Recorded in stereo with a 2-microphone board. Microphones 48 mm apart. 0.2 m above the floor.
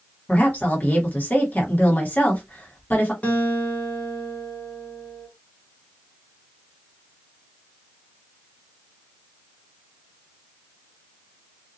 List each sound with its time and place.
0.3 s a woman speaking: 35° left (ahead or behind), 1.4 m
3.2 s a guitar: 25° left (ahead or behind), 1.4 m